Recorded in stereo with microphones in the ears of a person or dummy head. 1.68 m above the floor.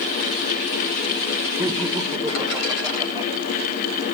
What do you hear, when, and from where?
1.6 s laughter: 5° right (ahead or behind), 1.8 m; by 3.3 s 25° right (ahead or behind), 3 m